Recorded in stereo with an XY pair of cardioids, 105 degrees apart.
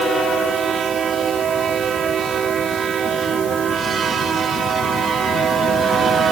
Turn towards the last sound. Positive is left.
No sound to turn to.